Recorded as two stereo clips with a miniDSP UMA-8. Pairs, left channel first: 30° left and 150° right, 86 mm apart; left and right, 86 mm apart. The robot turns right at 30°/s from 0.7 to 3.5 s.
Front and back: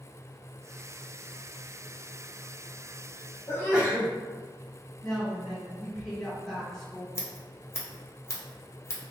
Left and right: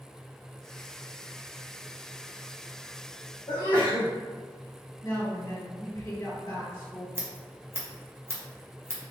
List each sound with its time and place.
3.5 s a sneeze: 85° left, 1.6 m; by 4.1 s 90° left, 1.6 m
5.0 s a woman speaking: 120° left, 1.9 m
7.2 s scissors: 30° right, 0.7 m